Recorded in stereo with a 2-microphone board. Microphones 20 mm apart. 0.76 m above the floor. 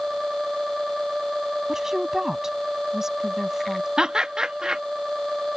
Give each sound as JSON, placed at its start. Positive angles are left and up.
{"t": 1.7, "sound": "a woman speaking", "side_deg": -25}
{"t": 4.0, "sound": "laughter", "side_deg": -40}